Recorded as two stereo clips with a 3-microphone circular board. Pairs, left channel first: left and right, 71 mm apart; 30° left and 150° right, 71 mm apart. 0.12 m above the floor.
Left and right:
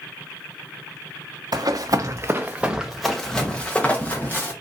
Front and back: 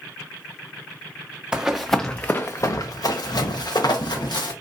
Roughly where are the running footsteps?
Right.